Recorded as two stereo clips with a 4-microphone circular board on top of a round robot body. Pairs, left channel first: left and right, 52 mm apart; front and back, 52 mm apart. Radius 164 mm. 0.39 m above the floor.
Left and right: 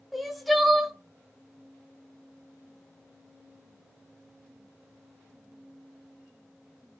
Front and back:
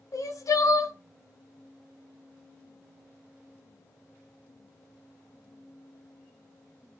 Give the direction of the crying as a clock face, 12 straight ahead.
12 o'clock.